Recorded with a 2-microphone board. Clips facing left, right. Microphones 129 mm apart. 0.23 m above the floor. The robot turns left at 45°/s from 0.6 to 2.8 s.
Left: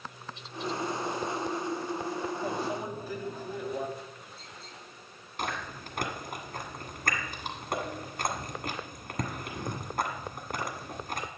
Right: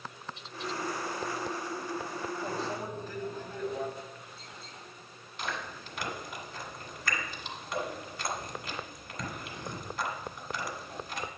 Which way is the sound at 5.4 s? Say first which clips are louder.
Left 3 dB; 50° left (ahead or behind).